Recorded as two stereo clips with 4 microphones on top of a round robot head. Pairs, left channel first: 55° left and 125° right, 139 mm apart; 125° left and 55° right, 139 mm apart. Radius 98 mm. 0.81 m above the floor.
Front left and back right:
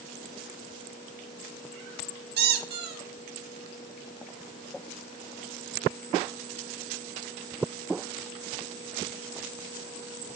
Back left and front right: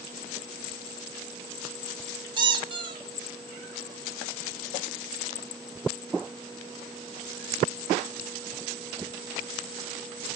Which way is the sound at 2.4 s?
115° right.